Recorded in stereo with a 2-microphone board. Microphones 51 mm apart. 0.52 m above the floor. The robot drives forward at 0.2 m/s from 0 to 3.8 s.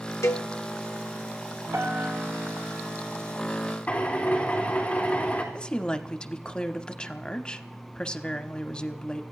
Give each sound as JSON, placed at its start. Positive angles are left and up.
{"t": 0.2, "sound": "a cowbell", "side_deg": 80, "distance_m": 1.1}
{"t": 1.7, "sound": "a piano", "side_deg": -85, "distance_m": 2.5}
{"t": 3.9, "sound": "a drill", "side_deg": 30, "distance_m": 3.0}
{"t": 5.5, "sound": "a woman speaking", "side_deg": 20, "distance_m": 0.8}